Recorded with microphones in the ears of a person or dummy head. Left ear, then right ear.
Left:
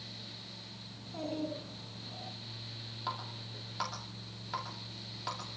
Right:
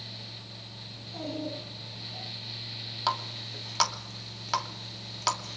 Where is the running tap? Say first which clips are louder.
Right 10 dB; 65° right (ahead or behind), 2.5 m.